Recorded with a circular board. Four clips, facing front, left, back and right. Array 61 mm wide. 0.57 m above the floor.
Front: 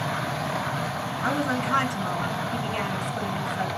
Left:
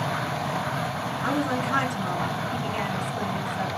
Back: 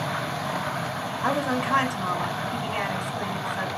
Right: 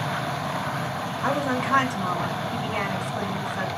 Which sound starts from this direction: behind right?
A woman speaking, at 1.2 s.